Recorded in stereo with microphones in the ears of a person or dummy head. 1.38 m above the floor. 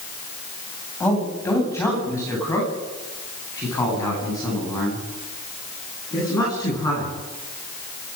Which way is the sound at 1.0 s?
10° left (ahead or behind).